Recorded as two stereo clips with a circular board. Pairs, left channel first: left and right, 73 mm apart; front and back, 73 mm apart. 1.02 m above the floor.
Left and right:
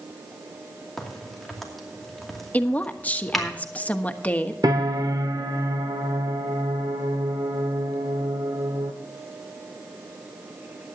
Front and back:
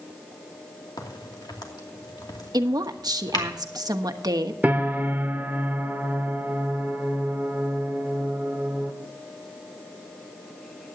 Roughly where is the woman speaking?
Behind left.